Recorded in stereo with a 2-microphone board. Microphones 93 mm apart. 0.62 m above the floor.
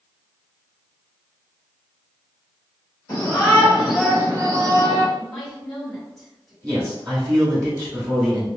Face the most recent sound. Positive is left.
turn(degrees=-30)  # may be behind; listen again after turning